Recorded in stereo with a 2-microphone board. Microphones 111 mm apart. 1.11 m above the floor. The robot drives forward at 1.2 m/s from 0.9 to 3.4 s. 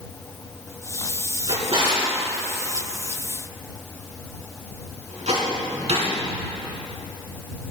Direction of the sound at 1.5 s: 55° right (ahead or behind).